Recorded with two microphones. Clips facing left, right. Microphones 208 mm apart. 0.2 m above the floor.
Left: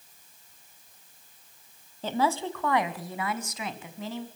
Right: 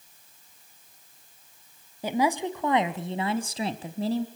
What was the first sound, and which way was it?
A woman speaking, 10° right (ahead or behind).